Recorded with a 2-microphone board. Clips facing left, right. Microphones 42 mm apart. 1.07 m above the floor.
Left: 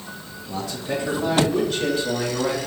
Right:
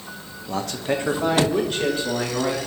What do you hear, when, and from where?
0.5 s a man speaking: 60° right (ahead or behind), 0.6 m; by 2.6 s 30° right (ahead or behind), 1.7 m